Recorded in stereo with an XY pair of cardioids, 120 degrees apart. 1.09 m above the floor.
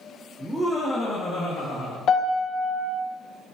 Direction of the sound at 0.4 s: 10° right.